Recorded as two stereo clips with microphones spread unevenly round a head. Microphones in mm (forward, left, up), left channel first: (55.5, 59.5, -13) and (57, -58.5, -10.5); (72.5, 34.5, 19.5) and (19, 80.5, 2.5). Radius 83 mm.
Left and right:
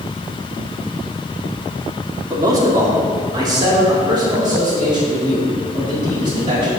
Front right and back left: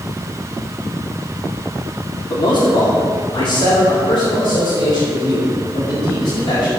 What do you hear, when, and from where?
2.3 s a man speaking: 30° right, 2 m; by 6.7 s 40° right, 5 m